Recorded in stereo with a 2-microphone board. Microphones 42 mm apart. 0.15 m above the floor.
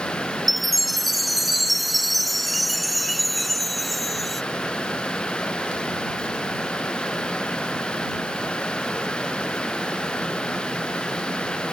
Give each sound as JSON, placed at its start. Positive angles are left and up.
{"t": 0.5, "sound": "a chime", "side_deg": 0}